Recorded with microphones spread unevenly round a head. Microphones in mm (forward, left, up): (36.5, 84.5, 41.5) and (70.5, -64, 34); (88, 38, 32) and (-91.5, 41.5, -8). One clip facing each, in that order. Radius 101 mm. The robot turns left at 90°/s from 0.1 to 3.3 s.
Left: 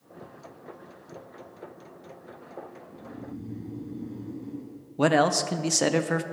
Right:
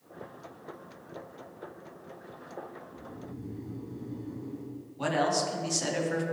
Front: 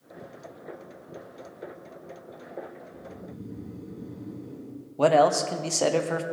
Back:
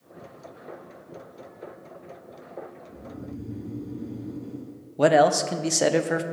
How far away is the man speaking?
About 0.6 m.